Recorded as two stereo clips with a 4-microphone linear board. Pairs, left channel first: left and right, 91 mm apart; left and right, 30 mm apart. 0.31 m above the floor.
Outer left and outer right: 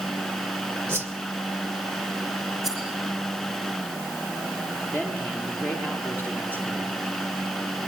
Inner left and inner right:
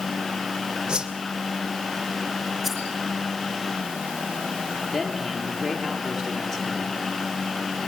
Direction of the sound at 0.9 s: 25° right (ahead or behind).